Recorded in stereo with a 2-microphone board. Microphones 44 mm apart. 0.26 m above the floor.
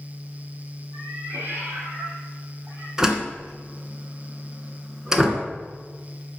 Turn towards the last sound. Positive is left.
turn(degrees=-15)  # may be behind; listen again after turning